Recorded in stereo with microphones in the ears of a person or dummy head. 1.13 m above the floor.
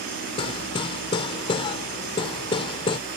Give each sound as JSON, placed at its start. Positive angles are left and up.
{"t": 0.4, "sound": "hammering", "side_deg": 35}